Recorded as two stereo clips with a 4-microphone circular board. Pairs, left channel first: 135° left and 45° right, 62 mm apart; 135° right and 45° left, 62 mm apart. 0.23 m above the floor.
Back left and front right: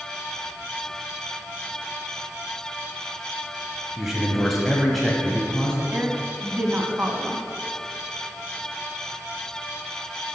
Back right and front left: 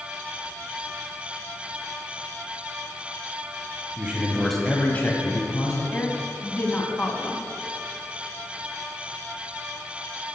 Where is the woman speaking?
90° right, 1.6 m.